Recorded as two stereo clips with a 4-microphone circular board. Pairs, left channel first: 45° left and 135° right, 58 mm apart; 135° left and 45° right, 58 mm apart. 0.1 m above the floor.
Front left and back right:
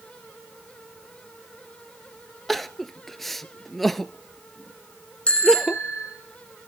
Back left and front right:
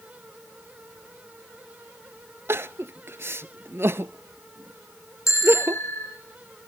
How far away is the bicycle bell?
About 4.5 m.